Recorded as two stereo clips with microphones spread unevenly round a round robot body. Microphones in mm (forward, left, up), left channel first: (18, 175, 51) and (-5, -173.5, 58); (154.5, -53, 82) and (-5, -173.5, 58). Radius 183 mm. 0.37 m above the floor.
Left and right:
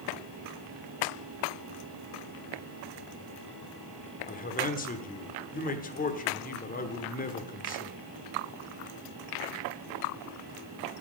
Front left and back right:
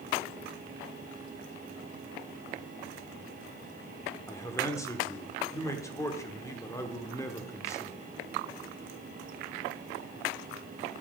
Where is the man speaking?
110° left, 1.2 m.